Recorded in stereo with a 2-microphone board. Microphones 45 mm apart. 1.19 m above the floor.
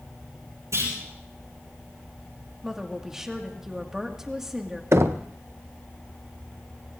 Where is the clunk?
85° right, 8 m.